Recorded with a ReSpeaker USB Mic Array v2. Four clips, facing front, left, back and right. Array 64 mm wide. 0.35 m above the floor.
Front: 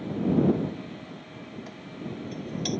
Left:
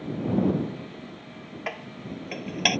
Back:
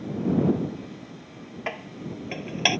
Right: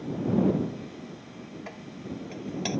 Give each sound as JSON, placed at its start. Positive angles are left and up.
{"t": 1.7, "sound": "dishes clattering", "azimuth_deg": 140}